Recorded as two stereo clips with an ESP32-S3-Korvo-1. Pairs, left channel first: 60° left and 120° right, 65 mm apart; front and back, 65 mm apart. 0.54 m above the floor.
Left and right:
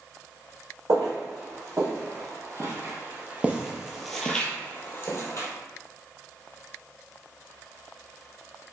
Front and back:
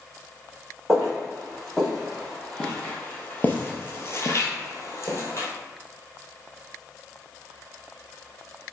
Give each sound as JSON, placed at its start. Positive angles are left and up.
{"t": 0.9, "sound": "footsteps", "azimuth_deg": -95, "distance_m": 1.9}